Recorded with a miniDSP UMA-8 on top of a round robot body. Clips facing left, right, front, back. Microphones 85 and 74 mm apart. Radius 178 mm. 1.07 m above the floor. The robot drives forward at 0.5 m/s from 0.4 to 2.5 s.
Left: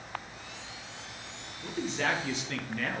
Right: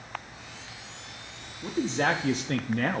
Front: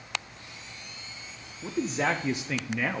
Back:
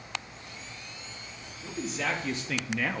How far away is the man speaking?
About 0.8 m.